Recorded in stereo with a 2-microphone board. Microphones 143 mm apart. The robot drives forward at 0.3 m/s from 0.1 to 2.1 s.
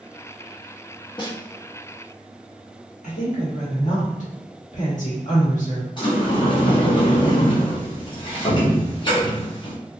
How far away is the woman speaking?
About 1.3 m.